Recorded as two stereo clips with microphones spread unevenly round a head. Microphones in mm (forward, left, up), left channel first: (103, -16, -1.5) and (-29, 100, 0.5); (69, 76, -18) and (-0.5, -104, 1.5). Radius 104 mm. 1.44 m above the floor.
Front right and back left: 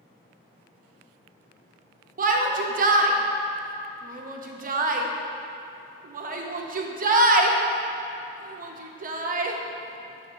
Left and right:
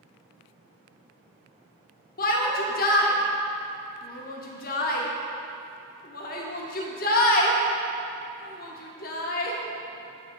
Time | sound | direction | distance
2.2 | a shout | 105° left | 0.7 m